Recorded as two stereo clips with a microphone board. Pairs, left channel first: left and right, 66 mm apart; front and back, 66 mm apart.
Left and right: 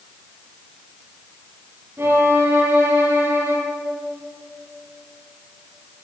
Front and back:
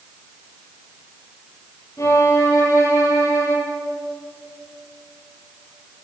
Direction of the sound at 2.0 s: 40° right.